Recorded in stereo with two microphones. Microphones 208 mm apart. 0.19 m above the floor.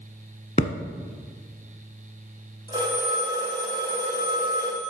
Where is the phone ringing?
20° right (ahead or behind), 3.5 m.